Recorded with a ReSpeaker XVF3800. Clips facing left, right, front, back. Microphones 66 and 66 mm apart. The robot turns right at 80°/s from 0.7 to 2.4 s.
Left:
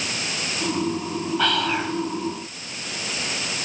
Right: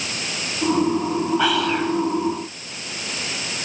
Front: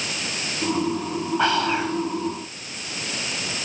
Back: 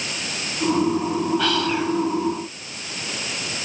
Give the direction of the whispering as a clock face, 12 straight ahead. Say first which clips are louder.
Right 3 dB, front 1 dB; 1 o'clock.